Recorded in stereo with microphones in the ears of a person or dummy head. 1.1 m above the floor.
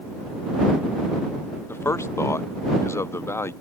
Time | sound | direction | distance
1.7 | a man speaking | 15° left (ahead or behind) | ?